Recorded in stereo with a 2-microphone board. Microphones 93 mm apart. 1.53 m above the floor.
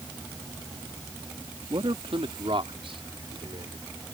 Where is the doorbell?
I don't hear a doorbell.